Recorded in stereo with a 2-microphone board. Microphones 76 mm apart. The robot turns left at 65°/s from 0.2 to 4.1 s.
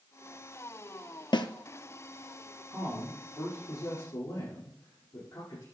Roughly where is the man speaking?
Behind right.